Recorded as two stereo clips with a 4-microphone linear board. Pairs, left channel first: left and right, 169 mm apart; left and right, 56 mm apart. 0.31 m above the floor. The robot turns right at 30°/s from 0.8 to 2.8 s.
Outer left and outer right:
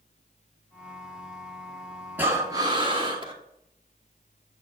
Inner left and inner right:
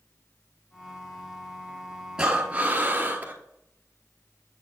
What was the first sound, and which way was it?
Breathing, 10° right (ahead or behind).